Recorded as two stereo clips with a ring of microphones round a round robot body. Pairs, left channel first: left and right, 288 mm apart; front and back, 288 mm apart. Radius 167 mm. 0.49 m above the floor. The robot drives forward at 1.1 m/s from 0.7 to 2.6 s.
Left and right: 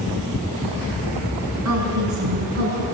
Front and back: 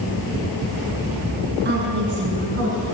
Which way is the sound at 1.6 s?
125° right.